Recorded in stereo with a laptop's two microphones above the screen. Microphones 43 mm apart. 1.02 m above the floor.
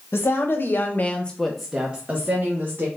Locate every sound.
0.1 s a woman speaking: 60° left (ahead or behind), 0.9 m; by 2.9 s 45° right (ahead or behind), 1.0 m